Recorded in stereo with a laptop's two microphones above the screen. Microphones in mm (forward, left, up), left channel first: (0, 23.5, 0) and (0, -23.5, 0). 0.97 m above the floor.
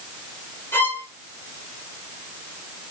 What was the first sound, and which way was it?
A violin, 55° left (ahead or behind).